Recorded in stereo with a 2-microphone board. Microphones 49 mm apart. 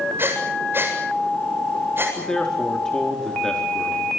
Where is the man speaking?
10° left (ahead or behind), 4 m.